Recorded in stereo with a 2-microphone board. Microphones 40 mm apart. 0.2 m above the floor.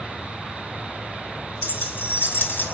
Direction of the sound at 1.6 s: 65° left (ahead or behind).